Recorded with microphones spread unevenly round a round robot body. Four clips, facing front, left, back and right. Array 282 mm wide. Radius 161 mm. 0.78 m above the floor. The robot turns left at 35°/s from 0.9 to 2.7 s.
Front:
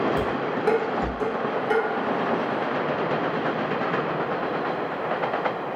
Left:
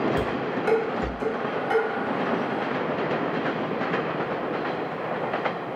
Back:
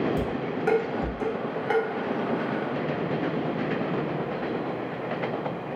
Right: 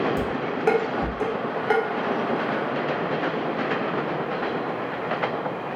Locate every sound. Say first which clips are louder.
0.2 s dishes clattering: even, front 3 dB; 50° right, 1.5 m; by 1.8 s 80° right, 1.5 m